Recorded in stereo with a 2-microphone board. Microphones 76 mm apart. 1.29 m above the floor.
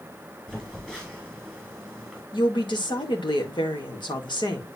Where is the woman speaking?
85° left, 1.9 m.